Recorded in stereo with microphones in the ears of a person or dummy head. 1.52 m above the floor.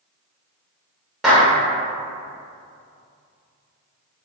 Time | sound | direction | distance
1.2 | a clap | centre (ahead or behind) | 1.1 m